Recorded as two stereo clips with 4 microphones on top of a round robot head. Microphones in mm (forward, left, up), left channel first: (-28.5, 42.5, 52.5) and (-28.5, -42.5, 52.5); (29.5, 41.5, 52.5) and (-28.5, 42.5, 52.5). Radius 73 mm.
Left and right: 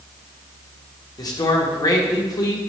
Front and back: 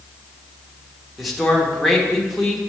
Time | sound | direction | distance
1.2 | a man speaking | 90° left | 1.6 m